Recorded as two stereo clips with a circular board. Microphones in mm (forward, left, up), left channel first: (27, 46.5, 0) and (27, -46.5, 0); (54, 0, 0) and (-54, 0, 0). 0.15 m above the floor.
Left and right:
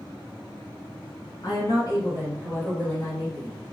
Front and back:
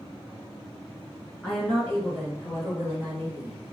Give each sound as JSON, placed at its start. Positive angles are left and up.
{"t": 1.4, "sound": "a woman speaking", "azimuth_deg": 75, "distance_m": 2.0}